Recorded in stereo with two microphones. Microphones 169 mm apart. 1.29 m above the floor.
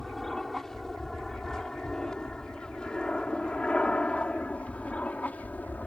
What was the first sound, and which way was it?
An aircraft, 5° left (ahead or behind).